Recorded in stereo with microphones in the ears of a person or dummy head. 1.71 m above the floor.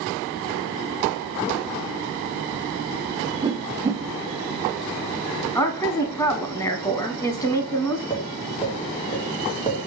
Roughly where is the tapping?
Left.